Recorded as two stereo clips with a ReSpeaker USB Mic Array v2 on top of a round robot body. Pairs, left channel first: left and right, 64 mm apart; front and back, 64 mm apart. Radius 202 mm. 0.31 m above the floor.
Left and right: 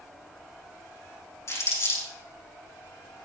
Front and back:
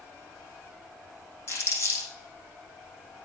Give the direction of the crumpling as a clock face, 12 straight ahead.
11 o'clock.